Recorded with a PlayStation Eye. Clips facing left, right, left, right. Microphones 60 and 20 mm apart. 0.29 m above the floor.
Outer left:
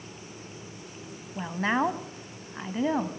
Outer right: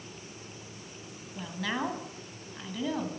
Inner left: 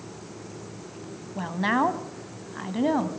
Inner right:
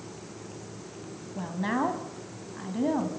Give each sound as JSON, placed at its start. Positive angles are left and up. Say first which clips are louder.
{"t": 1.4, "sound": "a woman speaking", "louder": "outer left 7 dB, inner left 5 dB", "side_deg": 35, "distance_m": 1.7}